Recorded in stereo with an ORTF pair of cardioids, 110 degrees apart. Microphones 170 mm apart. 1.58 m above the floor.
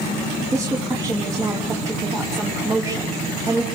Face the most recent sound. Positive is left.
turn(degrees=-20)